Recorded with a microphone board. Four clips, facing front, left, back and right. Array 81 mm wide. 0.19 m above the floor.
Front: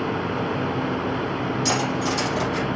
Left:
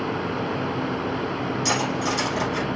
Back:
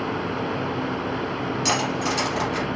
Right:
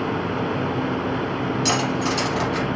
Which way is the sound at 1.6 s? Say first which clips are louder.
Right 1 dB, back 1 dB; 140° right.